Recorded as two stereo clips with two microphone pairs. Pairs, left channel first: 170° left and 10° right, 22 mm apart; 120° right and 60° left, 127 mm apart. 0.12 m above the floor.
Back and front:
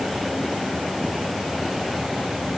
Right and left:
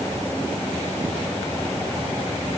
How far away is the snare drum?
I don't hear a snare drum.